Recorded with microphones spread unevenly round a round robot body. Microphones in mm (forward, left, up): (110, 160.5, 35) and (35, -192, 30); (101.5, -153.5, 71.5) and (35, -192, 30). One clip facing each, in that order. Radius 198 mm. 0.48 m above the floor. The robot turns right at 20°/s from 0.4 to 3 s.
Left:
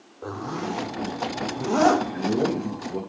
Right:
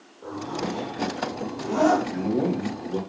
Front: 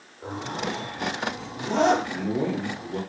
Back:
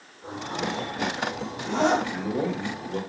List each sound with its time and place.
0.2 s a zipper: 70° left, 0.7 m; by 2.0 s 100° left, 0.7 m
2.1 s a man speaking: 115° right, 2 m; by 3.0 s 95° right, 2 m